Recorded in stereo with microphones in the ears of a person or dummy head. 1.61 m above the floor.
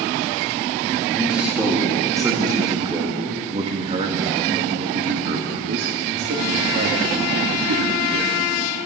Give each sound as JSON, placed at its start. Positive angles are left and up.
{"t": 1.1, "sound": "a man speaking", "side_deg": 0, "distance_m": 4.0}